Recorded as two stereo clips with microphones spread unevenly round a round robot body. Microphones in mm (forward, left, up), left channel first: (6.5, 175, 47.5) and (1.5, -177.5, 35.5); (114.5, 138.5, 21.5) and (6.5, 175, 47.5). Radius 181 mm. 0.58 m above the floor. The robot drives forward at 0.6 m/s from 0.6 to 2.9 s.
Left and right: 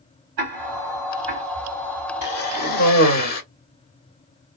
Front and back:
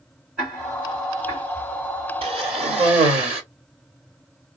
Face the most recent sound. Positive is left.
turn(degrees=150)